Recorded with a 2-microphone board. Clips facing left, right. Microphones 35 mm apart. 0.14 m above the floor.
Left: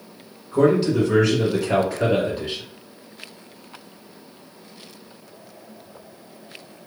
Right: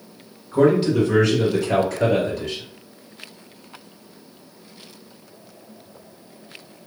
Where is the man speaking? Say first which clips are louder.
Right 1 dB; 10° right (ahead or behind), 1.5 m; by 2.6 s 35° left (ahead or behind), 1.7 m.